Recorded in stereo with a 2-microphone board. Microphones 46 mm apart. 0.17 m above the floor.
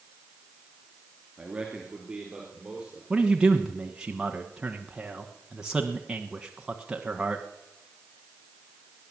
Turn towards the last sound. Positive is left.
turn(degrees=-15)  # may be behind; listen again after turning